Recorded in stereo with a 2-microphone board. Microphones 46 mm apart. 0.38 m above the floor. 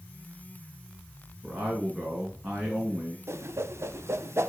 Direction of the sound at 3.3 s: 70° right (ahead or behind).